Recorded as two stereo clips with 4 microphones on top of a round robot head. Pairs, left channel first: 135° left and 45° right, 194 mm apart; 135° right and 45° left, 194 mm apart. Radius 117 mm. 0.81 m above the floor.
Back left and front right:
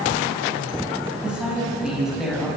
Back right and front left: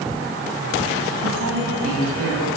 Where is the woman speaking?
40° left, 7.5 m; by 2.5 s 45° left, 6.5 m.